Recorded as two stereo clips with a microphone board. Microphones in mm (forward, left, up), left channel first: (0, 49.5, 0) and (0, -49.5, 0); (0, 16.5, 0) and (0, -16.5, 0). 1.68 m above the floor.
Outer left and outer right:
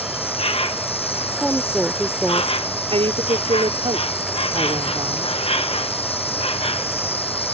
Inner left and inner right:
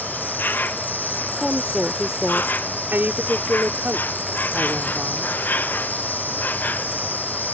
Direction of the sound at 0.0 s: 75° left (ahead or behind).